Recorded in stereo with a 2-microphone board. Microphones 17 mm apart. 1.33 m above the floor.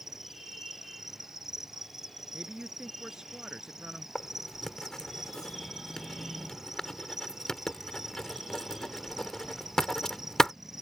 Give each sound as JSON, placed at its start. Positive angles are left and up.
{"t": 0.0, "sound": "an insect", "side_deg": -25}
{"t": 2.3, "sound": "a man speaking", "side_deg": -40}
{"t": 4.2, "sound": "writing", "side_deg": 30}